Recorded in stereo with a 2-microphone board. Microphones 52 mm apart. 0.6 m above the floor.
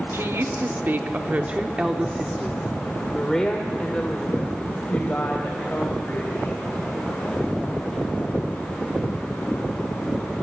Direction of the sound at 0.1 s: 60° right (ahead or behind).